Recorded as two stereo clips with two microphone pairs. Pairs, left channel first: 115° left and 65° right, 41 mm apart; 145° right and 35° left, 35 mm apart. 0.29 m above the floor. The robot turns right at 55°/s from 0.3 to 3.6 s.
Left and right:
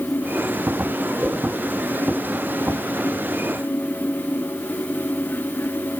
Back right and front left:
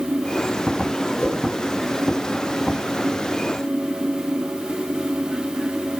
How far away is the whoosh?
About 4.5 m.